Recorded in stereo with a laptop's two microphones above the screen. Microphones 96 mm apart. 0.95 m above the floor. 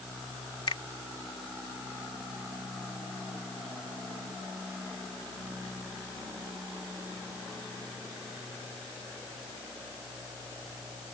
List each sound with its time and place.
0.7 s a finger snap: 60° left (ahead or behind)